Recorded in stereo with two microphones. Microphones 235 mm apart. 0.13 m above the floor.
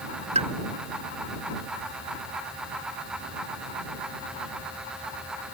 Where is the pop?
30° right (ahead or behind).